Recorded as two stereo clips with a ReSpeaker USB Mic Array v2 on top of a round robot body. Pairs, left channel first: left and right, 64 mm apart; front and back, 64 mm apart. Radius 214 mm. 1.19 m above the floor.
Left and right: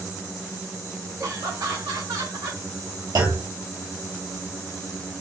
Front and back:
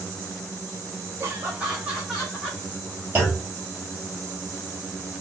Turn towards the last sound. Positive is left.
turn(degrees=-110)